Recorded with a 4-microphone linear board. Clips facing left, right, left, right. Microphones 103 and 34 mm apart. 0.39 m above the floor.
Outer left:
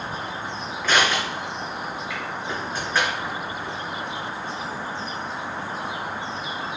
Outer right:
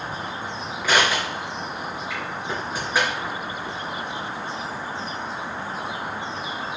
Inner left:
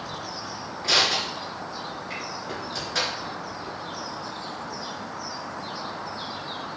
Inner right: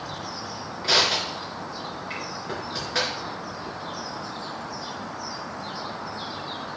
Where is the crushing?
10° right (ahead or behind), 3.5 m.